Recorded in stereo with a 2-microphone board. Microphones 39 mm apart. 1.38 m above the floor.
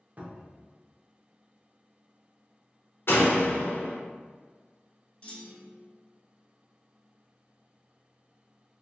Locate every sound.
0.2 s a cupboard door: 45° right (ahead or behind), 0.7 m
3.1 s a door slam: 70° left (ahead or behind), 0.9 m
5.2 s a clunk: 30° left (ahead or behind), 0.7 m